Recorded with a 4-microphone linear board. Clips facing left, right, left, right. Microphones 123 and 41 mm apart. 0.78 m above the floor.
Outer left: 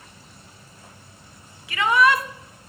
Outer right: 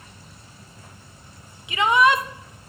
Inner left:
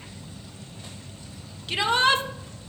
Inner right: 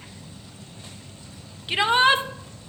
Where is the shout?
20° right (ahead or behind), 0.6 m.